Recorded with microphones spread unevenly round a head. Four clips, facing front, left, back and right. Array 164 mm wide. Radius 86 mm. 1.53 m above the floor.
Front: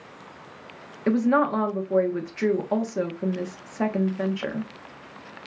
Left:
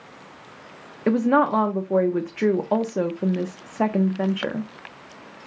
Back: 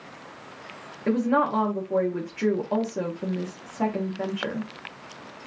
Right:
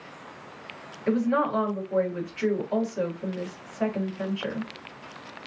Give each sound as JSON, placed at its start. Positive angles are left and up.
{"t": 1.1, "sound": "a woman speaking", "azimuth_deg": 85, "distance_m": 1.3}